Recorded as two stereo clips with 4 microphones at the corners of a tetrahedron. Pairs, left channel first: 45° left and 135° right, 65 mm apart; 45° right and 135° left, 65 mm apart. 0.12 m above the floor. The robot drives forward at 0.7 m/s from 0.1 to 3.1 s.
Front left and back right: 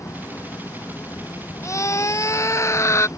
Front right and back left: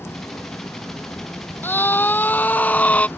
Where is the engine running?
10° left.